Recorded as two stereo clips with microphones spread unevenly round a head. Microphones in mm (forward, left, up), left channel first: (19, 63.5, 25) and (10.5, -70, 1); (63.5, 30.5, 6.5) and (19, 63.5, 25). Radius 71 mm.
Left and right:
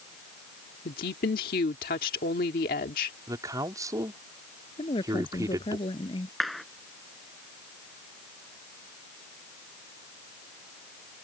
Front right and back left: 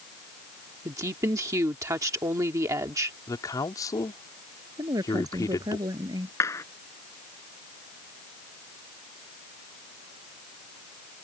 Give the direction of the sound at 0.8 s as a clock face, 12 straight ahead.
8 o'clock.